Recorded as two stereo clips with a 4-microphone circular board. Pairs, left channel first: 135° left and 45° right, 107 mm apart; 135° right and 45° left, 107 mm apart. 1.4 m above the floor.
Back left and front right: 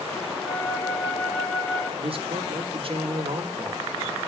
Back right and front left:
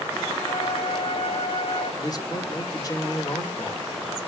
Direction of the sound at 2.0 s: 80° right.